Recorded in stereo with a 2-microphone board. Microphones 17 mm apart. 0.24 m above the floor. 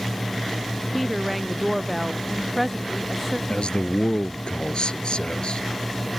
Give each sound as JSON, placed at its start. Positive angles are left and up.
{"t": 0.9, "sound": "a woman speaking", "side_deg": 0}
{"t": 3.5, "sound": "a man speaking", "side_deg": 75}